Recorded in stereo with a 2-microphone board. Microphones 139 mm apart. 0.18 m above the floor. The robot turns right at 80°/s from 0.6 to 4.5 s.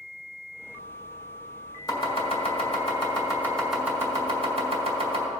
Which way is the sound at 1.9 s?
25° left (ahead or behind).